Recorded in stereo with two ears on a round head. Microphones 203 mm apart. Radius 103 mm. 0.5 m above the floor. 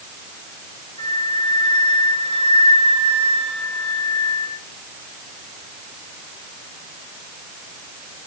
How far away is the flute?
About 3.5 m.